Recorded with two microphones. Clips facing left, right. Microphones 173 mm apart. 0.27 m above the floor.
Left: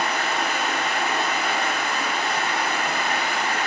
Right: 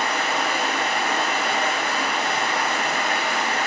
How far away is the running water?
About 1.3 m.